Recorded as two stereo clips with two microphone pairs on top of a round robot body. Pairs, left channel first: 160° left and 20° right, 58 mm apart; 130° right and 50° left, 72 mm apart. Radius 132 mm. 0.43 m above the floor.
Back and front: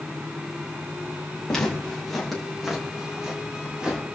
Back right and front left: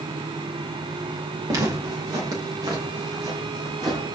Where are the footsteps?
85° left, 5.5 m; by 4.0 s 60° left, 8 m.